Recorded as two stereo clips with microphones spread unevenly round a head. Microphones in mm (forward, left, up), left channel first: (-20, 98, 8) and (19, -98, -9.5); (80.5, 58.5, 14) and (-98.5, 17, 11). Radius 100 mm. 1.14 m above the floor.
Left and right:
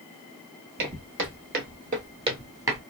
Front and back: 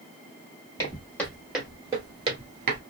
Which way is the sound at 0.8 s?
55° right.